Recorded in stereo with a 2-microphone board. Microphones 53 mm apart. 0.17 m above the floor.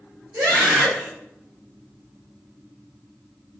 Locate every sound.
0.3 s a scream: 65° right (ahead or behind), 4.5 m